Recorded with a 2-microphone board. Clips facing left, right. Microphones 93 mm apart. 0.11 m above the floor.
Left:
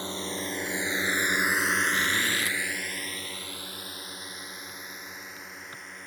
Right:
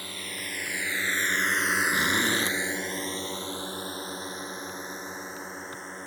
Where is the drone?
30° left (ahead or behind); by 6.1 s 30° right (ahead or behind).